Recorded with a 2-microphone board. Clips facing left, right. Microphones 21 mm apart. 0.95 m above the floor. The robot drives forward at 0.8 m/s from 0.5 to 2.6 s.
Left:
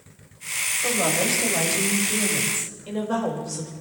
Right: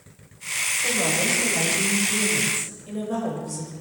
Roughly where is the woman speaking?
Left.